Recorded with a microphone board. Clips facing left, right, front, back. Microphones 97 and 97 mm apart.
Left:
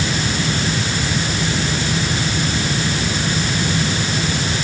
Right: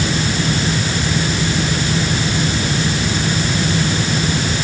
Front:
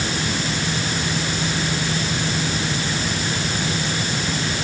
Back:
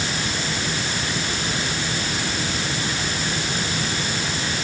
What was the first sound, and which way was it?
Only background noise.